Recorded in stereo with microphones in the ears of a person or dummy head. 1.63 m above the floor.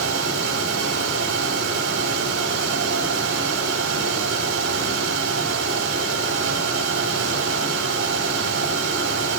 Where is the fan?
80° right, 5 m.